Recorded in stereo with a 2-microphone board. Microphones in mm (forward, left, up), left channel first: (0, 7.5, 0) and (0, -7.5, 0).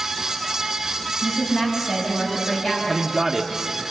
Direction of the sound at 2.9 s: 25° right (ahead or behind).